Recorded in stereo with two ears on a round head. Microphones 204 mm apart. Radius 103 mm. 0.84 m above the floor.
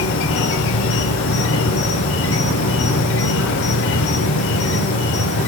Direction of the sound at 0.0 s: 65° left (ahead or behind).